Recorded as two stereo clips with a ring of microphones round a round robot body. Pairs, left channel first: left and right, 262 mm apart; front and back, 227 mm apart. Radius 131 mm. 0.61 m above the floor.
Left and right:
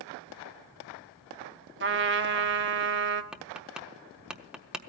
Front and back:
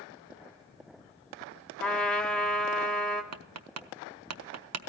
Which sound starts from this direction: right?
A trumpet, at 1.8 s.